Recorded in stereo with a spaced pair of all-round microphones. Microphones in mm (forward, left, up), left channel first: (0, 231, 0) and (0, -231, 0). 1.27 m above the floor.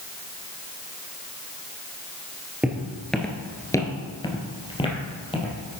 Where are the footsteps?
5° right (ahead or behind), 1.5 m; by 5.8 s 10° left (ahead or behind), 3 m.